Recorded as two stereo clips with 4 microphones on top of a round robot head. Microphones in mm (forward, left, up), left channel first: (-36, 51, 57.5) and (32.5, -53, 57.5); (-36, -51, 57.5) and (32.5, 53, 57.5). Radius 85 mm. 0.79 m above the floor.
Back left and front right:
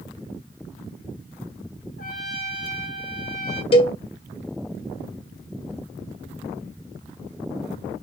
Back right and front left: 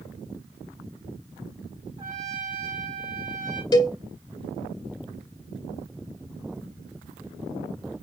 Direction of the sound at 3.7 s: 175° left.